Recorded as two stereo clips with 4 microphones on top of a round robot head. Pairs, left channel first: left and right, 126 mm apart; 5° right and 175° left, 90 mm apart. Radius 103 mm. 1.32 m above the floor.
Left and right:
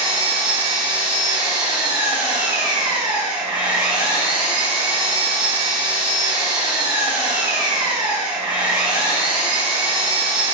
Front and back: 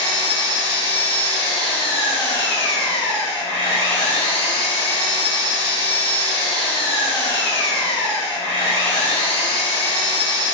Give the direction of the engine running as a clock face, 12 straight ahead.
1 o'clock.